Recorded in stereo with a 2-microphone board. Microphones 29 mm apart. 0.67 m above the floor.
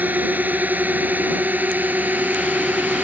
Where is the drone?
80° right.